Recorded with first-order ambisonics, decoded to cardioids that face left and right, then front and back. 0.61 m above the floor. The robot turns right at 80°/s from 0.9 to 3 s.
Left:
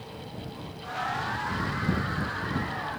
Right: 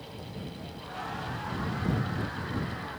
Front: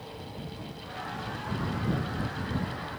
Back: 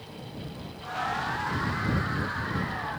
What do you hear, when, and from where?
Only background noise.